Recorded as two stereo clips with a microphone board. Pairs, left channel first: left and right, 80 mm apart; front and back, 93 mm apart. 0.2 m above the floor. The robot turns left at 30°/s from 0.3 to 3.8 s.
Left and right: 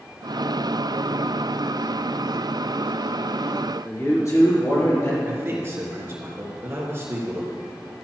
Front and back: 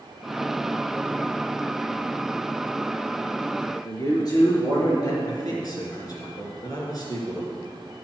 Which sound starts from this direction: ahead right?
A man speaking, at 5.2 s.